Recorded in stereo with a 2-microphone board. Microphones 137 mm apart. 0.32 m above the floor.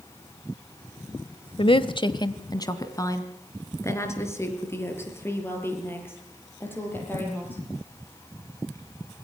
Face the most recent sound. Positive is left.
turn(degrees=15)  # may be behind; listen again after turning